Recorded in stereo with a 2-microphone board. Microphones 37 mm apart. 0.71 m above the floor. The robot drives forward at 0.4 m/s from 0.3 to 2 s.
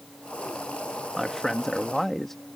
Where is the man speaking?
10° left (ahead or behind).